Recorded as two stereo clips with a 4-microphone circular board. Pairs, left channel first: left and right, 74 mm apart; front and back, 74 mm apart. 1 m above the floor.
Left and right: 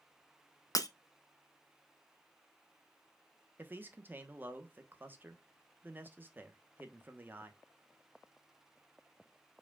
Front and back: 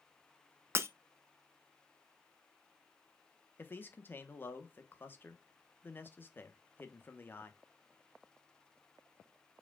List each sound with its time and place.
0.8 s breaking glass: 125° left, 0.5 m
3.6 s a man speaking: 45° right, 0.9 m